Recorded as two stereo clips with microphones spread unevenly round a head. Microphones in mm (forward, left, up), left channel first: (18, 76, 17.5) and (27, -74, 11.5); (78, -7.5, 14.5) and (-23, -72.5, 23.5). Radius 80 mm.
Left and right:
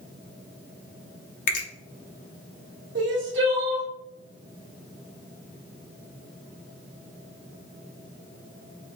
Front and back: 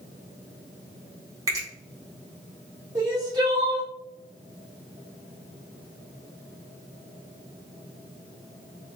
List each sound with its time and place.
1.5 s a finger snap: 140° left, 0.6 m
3.0 s crying: 90° right, 1.0 m